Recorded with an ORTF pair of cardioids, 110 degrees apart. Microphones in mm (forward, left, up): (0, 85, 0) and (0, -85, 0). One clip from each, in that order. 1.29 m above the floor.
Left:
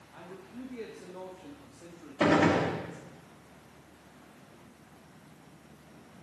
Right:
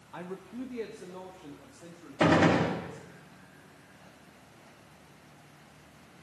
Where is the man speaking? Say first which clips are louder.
Right 6 dB; 55° right, 0.9 m; by 3.0 s 10° left, 3.5 m.